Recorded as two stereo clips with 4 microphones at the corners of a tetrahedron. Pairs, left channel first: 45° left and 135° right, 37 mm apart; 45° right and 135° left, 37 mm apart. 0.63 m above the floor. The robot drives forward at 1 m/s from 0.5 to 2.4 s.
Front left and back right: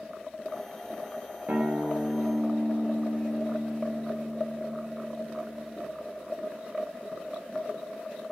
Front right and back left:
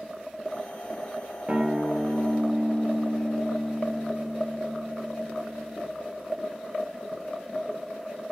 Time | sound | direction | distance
1.5 | a guitar | 165° right | 1.0 m